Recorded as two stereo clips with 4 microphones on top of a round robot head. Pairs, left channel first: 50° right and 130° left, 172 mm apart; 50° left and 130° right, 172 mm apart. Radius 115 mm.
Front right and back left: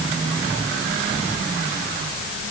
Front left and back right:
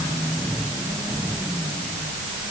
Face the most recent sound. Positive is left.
No sound to turn to.